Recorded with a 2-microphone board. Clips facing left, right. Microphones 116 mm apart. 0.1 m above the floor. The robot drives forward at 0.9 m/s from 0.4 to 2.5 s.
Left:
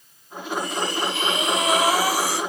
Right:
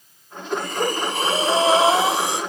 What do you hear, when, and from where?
0.5 s breathing: 55° right (ahead or behind), 0.8 m; by 2.4 s 20° right (ahead or behind), 2.0 m